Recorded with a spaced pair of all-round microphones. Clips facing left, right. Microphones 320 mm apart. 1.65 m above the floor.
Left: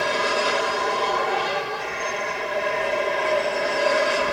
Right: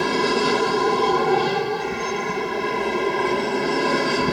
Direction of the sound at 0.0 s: 55° right (ahead or behind).